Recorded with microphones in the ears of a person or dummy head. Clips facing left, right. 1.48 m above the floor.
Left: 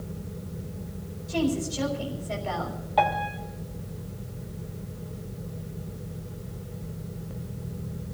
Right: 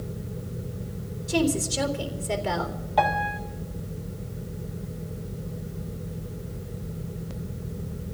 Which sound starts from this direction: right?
A woman speaking, at 1.3 s.